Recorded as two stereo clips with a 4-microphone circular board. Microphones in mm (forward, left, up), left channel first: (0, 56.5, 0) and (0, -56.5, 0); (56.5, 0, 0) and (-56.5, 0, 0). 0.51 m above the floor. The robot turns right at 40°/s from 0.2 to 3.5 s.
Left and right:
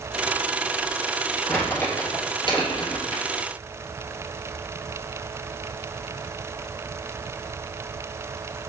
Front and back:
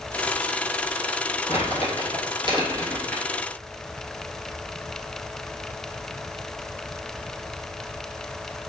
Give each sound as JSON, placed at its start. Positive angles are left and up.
{"t": 1.5, "sound": "crumpling", "azimuth_deg": 10, "distance_m": 1.5}